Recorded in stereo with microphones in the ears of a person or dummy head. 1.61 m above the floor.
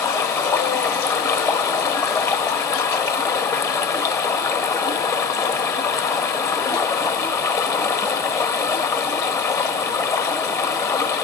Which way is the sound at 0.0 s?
20° left (ahead or behind).